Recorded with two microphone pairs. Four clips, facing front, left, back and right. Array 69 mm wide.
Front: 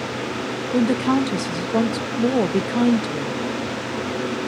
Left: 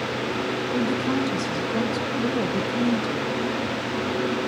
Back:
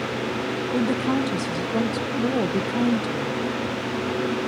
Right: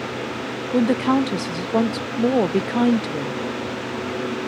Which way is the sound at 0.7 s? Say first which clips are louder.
Right 8 dB, front 5 dB; 65° right.